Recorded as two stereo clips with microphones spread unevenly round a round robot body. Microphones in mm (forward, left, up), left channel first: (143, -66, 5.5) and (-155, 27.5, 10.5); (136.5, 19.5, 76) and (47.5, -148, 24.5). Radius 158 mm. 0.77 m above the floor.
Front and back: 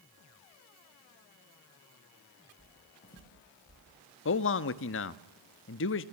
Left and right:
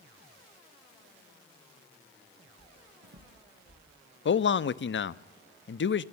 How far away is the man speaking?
About 0.8 m.